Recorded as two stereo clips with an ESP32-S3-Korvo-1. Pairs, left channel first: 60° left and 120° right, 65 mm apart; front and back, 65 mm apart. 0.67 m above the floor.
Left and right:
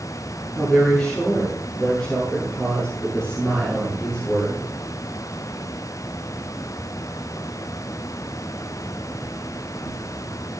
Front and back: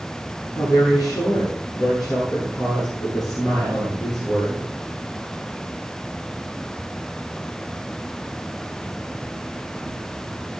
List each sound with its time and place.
0.6 s a woman speaking: 20° right, 8.5 m